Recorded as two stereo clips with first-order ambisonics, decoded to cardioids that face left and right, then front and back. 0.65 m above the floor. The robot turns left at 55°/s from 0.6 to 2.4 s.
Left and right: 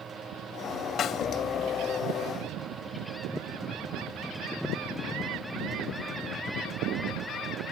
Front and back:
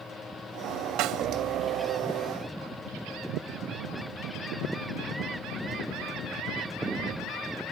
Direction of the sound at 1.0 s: 150° left.